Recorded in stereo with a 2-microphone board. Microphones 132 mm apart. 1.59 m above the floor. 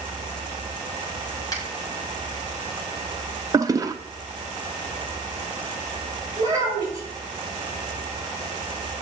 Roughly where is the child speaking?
Right.